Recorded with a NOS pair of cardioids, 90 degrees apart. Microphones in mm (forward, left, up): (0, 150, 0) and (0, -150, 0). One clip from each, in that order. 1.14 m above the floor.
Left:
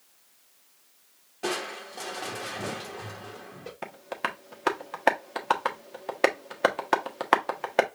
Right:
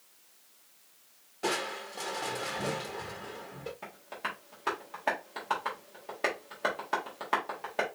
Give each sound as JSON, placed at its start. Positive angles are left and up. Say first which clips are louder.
{"t": 1.4, "sound": "crushing", "louder": "left 1 dB", "azimuth_deg": 5, "distance_m": 1.1}
{"t": 3.8, "sound": "tapping", "louder": "left 8 dB", "azimuth_deg": 65, "distance_m": 1.3}